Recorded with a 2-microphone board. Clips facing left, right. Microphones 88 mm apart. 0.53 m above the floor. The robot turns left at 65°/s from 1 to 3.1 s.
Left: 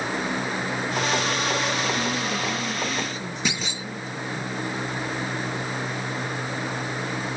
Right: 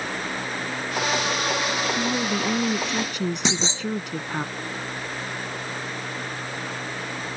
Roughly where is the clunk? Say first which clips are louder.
Right 3 dB; right.